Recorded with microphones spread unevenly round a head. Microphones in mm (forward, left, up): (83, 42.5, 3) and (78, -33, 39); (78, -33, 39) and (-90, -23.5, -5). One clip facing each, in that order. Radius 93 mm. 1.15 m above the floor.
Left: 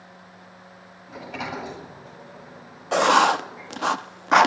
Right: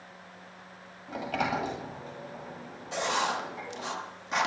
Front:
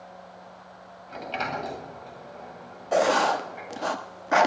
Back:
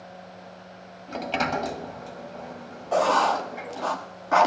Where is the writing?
60° left, 0.8 m.